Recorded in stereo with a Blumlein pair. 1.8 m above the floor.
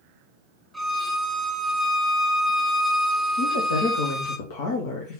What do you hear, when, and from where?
0.7 s a violin: straight ahead, 1.5 m
3.4 s a woman speaking: 50° left, 1.6 m